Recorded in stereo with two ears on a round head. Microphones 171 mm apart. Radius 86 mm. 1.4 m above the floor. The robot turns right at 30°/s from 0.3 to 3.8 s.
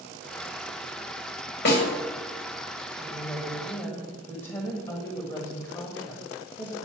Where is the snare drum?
60° left (ahead or behind), 2 m; by 1.8 s 55° left (ahead or behind), 2 m.